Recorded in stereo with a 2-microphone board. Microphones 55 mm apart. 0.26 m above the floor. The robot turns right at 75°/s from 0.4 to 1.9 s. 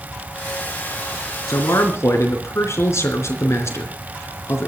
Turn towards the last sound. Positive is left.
turn(degrees=120)